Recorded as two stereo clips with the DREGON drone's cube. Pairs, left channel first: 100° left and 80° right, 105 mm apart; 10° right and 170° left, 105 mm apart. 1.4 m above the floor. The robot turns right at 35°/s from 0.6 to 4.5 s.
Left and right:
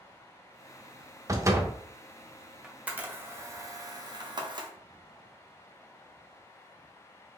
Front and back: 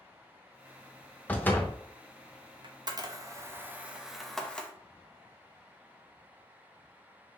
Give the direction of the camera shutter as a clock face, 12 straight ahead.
5 o'clock.